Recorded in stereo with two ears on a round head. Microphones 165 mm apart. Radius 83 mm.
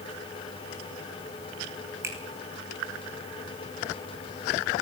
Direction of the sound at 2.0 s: 15° right (ahead or behind).